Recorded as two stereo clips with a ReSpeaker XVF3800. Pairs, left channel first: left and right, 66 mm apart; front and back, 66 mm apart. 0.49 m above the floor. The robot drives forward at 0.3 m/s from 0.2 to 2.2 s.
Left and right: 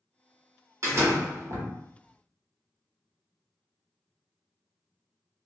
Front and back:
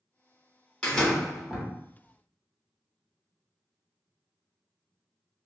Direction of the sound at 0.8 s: 70° right.